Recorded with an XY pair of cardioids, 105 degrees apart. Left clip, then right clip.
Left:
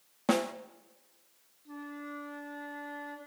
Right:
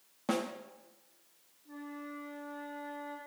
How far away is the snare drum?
About 0.6 m.